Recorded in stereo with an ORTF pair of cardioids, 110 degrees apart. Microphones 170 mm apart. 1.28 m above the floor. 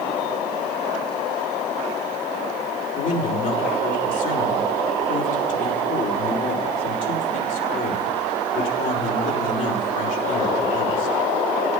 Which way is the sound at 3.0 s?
50° left.